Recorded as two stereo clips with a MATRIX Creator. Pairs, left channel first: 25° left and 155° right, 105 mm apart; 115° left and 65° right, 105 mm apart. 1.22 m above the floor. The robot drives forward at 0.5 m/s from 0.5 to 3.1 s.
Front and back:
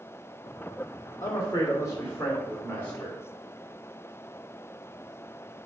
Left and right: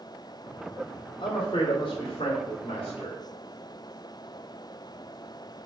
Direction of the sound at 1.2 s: 80° left.